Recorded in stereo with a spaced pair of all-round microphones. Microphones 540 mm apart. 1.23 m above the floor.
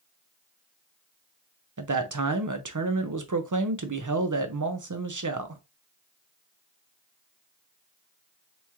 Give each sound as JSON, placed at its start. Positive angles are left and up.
{"t": 1.8, "sound": "a man speaking", "side_deg": -35, "distance_m": 0.7}